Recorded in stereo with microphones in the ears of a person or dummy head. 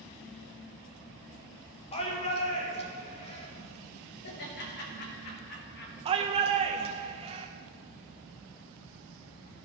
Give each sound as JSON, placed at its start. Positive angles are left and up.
{"t": 1.9, "sound": "a shout", "side_deg": 35, "distance_m": 2.0}
{"t": 4.2, "sound": "laughter", "side_deg": 55, "distance_m": 2.0}
{"t": 6.0, "sound": "a shout", "side_deg": -30, "distance_m": 1.1}